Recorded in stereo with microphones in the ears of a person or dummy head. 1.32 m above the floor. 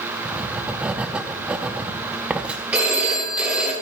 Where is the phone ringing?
10° right (ahead or behind), 2.5 m.